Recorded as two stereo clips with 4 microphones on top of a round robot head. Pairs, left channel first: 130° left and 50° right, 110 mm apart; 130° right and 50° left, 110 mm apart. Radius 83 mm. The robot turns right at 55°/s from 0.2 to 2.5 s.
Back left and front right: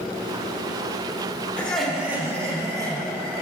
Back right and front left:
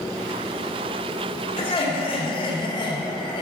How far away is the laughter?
About 2 m.